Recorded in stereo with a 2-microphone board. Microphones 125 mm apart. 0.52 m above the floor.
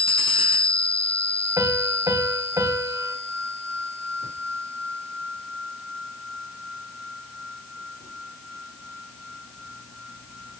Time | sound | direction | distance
1.6 | a piano | 25° right (ahead or behind) | 3 m